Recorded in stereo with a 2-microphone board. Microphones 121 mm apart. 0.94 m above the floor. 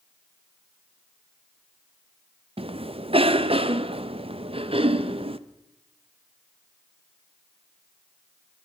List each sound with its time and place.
2.6 s a cough: 50° right (ahead or behind), 0.6 m